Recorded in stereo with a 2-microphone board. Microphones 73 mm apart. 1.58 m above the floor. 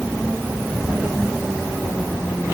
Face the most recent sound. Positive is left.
No sound to turn to.